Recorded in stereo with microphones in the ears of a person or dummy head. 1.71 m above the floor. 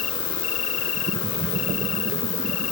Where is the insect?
80° left.